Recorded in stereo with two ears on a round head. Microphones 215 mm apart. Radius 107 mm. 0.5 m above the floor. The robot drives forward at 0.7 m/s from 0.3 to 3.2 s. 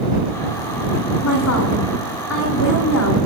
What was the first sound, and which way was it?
A woman speaking, 70° left (ahead or behind).